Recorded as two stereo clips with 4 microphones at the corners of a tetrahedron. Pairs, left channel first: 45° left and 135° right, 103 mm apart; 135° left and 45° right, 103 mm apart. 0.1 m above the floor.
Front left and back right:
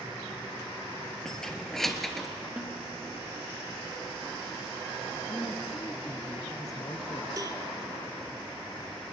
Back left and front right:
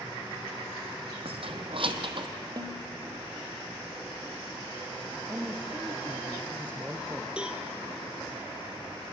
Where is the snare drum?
60° right, 1.9 m.